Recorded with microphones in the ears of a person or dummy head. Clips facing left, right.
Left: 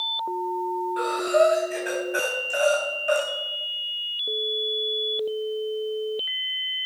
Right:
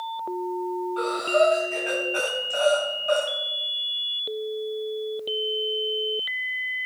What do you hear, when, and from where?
1.0 s breathing: 25° left (ahead or behind), 3 m